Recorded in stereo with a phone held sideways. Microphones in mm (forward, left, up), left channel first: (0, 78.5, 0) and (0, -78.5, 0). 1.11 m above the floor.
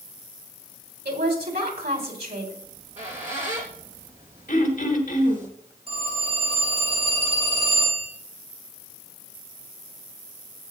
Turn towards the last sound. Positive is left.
turn(degrees=-40)  # may be behind; listen again after turning